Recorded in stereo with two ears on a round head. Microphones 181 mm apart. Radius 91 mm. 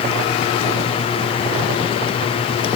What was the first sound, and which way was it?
Only background noise.